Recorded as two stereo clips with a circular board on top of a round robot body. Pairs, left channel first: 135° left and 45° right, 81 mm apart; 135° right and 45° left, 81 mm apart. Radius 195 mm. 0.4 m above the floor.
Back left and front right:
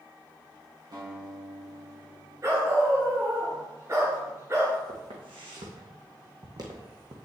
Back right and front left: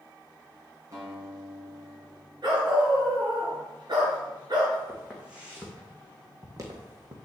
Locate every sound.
0.9 s a guitar: 10° right, 3.5 m
2.4 s a dog barking: 10° left, 3 m
4.9 s footsteps: 40° right, 2 m; by 7.2 s 10° left, 1.4 m